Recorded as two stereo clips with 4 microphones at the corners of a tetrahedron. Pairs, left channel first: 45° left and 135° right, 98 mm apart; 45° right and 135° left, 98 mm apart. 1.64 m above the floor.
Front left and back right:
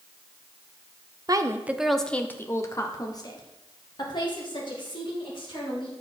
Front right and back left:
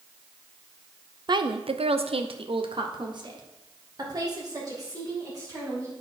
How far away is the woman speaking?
About 0.6 m.